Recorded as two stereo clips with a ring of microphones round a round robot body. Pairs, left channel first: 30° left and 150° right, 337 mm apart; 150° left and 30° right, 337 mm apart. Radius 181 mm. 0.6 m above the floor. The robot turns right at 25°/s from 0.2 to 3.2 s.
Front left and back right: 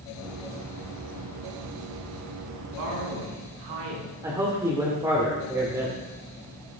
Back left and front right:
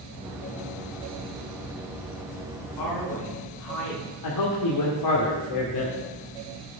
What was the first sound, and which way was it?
A man speaking, 175° left.